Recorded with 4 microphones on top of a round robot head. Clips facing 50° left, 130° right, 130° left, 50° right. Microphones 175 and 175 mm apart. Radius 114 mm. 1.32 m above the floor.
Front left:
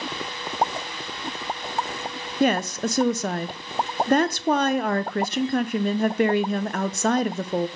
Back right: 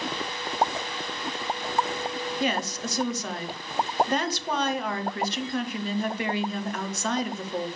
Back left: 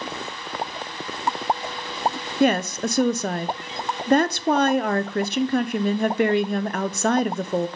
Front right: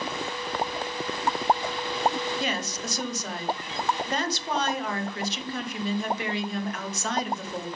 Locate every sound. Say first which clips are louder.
2.4 s a woman speaking: front left 9 dB, back left 11 dB; 90° left, 0.8 m